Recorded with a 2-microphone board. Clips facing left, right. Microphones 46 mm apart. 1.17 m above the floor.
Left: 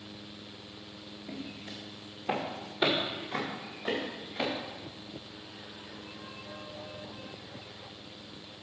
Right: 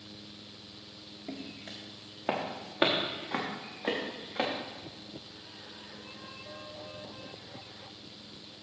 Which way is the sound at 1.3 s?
65° right (ahead or behind).